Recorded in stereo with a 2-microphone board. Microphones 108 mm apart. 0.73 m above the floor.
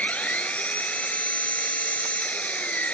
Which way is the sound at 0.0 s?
15° left (ahead or behind).